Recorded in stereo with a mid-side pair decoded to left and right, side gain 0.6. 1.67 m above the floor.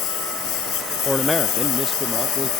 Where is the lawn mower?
65° left.